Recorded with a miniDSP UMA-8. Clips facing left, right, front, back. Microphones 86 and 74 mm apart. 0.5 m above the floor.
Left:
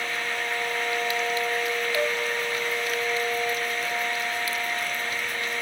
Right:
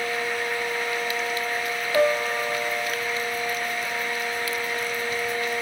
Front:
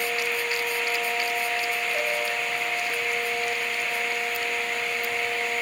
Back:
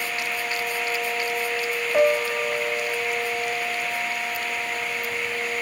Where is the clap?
I don't hear a clap.